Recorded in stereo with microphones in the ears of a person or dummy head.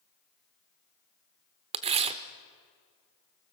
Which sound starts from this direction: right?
Tearing paper, at 1.7 s.